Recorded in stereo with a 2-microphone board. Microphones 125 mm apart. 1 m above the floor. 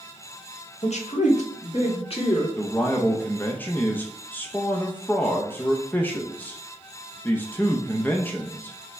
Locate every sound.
0.8 s a man speaking: 60° left (ahead or behind), 1.0 m; by 2.5 s 45° left (ahead or behind), 2.0 m
2.6 s a man speaking: 15° left (ahead or behind), 0.5 m